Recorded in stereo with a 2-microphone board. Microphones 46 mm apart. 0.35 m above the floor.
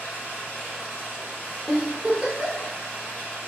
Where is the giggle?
15° right (ahead or behind), 0.6 m.